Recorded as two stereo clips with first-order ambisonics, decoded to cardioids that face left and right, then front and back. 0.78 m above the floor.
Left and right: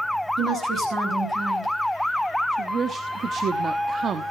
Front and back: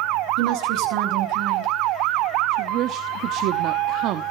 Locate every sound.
0.4 s a woman speaking: 150° right, 9.5 m
2.5 s a woman speaking: 150° right, 1.1 m